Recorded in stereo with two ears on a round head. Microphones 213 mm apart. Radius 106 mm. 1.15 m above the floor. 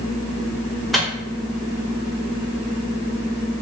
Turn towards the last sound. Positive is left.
turn(degrees=0)  # may be behind; listen again after turning